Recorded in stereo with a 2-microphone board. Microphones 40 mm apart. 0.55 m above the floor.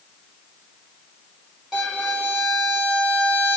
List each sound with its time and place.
1.7 s a violin: 15° right (ahead or behind), 1.4 m